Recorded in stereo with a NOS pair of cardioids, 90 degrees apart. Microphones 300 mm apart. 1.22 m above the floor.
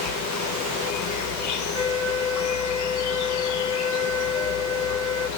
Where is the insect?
70° left, 0.7 m.